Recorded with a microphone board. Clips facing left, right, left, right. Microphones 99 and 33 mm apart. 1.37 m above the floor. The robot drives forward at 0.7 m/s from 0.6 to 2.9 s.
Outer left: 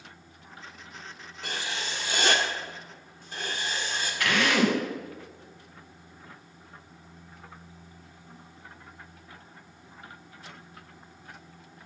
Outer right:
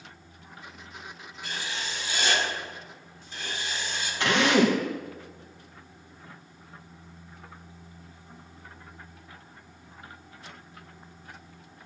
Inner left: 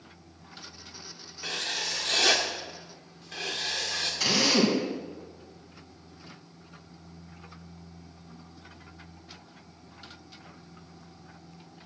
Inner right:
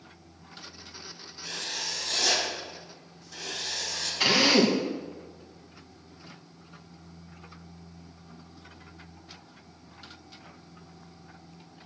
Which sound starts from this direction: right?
A drill, at 4.2 s.